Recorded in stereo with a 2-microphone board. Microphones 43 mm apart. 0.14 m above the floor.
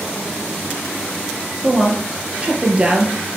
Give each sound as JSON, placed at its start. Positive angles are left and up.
{"t": 1.6, "sound": "a woman speaking", "side_deg": -25, "distance_m": 2.0}